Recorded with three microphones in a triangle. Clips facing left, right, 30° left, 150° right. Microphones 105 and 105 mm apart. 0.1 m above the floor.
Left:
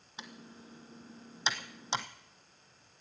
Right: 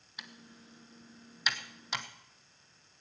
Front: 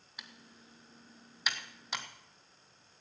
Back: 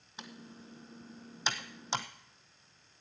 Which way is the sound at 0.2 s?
150° left.